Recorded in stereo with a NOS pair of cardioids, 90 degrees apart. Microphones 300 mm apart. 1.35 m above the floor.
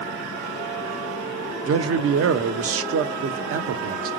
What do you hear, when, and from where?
1.7 s a man speaking: 50° right, 0.7 m